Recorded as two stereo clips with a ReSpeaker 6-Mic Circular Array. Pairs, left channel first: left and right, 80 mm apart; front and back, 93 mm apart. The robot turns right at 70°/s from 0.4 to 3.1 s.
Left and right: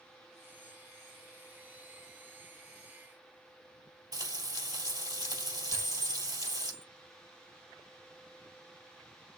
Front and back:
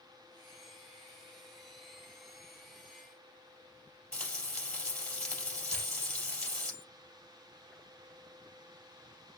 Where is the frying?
75° right, 3 m.